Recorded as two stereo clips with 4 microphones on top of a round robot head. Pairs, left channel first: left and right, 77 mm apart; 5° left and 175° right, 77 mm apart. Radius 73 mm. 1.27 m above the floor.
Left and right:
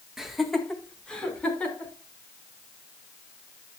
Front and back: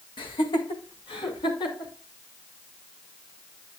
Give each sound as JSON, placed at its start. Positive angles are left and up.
{"t": 0.2, "sound": "laughter", "azimuth_deg": -5, "distance_m": 1.7}